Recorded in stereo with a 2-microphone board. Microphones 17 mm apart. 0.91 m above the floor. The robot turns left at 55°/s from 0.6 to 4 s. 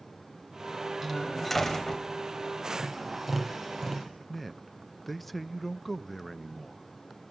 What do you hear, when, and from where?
1.0 s a door slam: 165° right, 3 m; by 2.0 s 135° left, 3 m
2.8 s tapping: 150° right, 6.5 m; by 4.1 s 145° left, 6.5 m
4.3 s a man speaking: 15° left (ahead or behind), 0.5 m